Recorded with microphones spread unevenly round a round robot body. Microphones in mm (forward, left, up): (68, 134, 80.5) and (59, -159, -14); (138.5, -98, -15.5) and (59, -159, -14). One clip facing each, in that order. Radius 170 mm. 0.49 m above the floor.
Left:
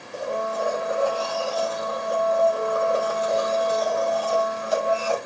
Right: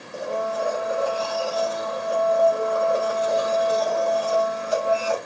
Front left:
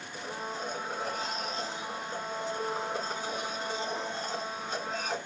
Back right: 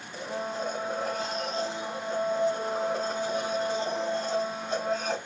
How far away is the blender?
About 2 m.